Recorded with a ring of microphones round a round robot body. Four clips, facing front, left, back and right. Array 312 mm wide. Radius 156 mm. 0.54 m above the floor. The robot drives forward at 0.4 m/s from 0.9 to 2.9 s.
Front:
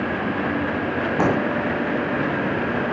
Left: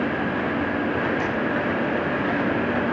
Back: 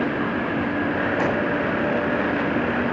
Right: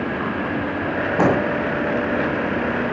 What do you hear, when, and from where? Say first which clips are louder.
1.2 s an explosion: right 7 dB, front 5 dB; 70° right